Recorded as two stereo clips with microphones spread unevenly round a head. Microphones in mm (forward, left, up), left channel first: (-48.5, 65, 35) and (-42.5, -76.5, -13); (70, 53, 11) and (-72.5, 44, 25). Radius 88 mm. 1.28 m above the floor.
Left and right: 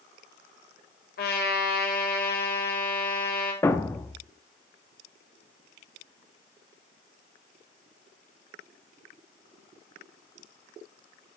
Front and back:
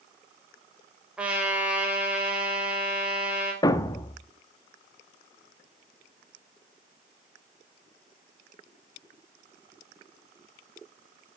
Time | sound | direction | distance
1.2 | a trumpet | 100° left | 4.5 m
3.6 | a thud | 60° left | 0.8 m